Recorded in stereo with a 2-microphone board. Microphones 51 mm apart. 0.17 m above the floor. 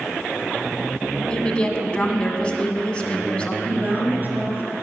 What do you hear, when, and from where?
1.3 s a woman speaking: 20° left (ahead or behind), 1.1 m
3.6 s a woman speaking: 35° right (ahead or behind), 3 m